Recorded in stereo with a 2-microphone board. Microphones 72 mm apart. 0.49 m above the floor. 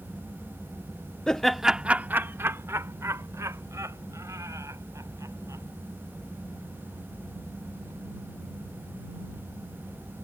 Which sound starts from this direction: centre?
Laughter, at 1.3 s.